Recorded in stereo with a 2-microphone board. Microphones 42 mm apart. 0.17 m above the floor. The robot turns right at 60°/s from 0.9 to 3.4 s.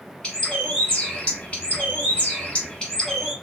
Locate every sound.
0.2 s a bird: 35° left, 1.5 m; by 3.3 s straight behind, 1.5 m